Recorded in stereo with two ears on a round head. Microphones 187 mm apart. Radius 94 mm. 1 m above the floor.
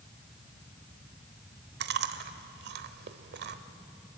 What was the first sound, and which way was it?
Chewing, 55° right (ahead or behind).